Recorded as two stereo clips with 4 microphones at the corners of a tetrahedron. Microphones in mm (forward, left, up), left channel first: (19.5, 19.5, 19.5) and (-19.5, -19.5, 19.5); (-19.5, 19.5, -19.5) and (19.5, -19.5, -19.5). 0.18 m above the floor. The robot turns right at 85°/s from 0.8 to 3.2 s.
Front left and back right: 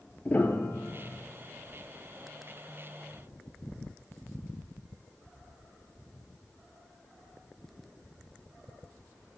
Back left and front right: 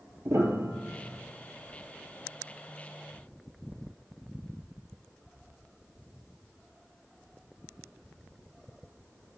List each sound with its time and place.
0.2 s a piano: 20° right, 1.2 m; by 1.2 s 15° left, 1.2 m